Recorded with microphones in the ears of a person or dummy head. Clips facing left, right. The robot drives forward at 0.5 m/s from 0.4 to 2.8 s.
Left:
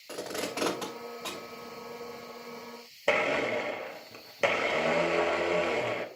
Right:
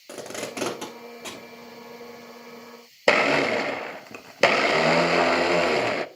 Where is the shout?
No shout in this recording.